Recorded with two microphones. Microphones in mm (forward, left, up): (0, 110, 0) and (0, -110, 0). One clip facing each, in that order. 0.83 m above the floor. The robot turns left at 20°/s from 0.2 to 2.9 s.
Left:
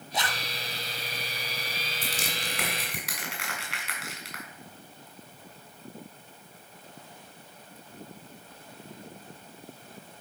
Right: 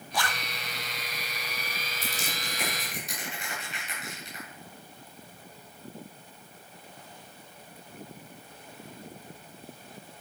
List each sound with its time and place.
0.1 s a zipper: 20° left (ahead or behind), 0.9 m
2.0 s crushing: 80° left, 3 m; by 4.4 s 85° left, 3 m